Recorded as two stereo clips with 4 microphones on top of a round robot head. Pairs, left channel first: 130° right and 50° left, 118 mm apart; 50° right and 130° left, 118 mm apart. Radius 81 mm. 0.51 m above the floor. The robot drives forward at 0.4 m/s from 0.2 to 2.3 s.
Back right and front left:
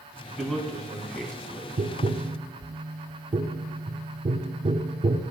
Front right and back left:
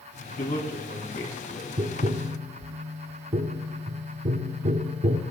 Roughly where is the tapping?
Left.